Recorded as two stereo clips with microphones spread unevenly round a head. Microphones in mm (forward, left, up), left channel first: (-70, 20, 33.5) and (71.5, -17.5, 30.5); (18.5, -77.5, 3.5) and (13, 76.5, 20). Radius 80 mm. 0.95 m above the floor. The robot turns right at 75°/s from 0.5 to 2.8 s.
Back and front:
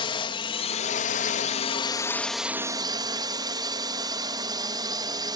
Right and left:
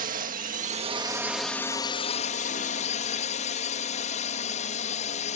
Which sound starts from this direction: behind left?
A drone, at 0.0 s.